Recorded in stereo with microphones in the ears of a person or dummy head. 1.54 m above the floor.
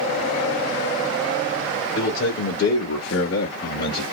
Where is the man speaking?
60° left (ahead or behind), 1.2 m; by 4.0 s 45° left (ahead or behind), 1.2 m.